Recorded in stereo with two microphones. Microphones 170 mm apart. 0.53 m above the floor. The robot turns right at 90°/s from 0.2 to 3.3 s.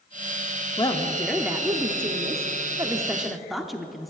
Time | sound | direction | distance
0.8 | a woman speaking | 130° left | 0.8 m